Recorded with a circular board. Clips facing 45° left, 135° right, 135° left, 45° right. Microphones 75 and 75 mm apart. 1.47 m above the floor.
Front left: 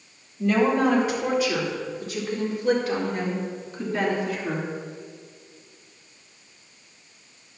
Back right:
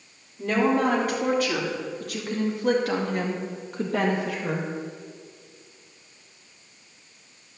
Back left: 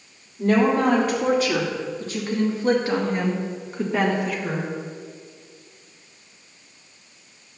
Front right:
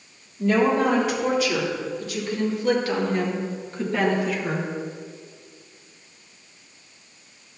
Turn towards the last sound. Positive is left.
turn(degrees=-130)